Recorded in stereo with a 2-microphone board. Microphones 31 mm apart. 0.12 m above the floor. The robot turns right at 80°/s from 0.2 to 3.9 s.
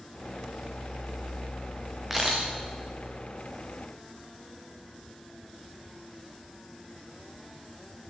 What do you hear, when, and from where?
2.1 s a camera shutter: 10° right (ahead or behind), 5.5 m; by 2.5 s 35° right (ahead or behind), 5.5 m